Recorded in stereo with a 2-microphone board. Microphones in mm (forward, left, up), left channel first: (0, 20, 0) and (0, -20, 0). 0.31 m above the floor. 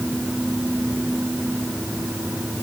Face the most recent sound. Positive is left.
No sound to turn to.